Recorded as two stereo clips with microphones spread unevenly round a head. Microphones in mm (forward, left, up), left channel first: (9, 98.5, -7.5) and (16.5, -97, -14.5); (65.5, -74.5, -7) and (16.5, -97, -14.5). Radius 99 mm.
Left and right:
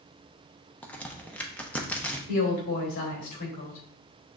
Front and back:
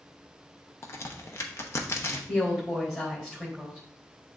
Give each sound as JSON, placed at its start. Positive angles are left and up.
{"t": 0.8, "sound": "a crack", "azimuth_deg": 10, "distance_m": 0.9}
{"t": 2.3, "sound": "a woman speaking", "azimuth_deg": 100, "distance_m": 4.0}